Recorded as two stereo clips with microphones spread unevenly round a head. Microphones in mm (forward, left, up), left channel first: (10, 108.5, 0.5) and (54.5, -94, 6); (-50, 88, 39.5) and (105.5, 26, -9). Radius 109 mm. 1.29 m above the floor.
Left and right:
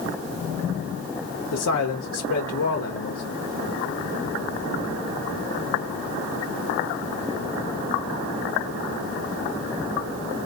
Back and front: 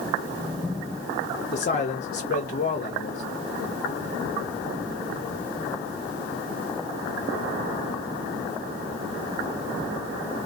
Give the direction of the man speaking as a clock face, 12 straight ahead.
8 o'clock.